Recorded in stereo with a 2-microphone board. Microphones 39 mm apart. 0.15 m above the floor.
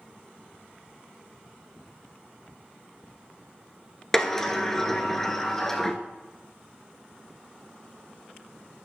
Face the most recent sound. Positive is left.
turn(degrees=10)  # may be behind; listen again after turning